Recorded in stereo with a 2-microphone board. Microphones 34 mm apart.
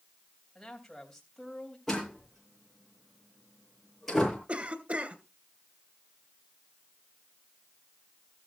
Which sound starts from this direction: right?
A cough, at 4.5 s.